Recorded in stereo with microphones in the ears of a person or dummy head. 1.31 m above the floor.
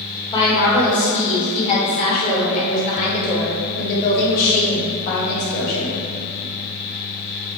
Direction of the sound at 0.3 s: 30° left (ahead or behind).